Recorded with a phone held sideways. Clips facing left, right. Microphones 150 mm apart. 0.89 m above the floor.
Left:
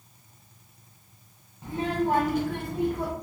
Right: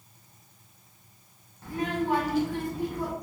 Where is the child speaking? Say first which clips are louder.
Left 2 dB; 15° left (ahead or behind), 0.6 m; by 3.1 s 65° left (ahead or behind), 1.0 m.